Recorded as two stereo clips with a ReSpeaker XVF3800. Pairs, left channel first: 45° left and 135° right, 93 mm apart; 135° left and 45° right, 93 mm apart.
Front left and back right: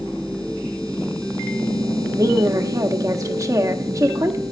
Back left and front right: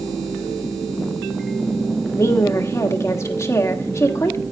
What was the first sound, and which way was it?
A woman speaking, 175° right.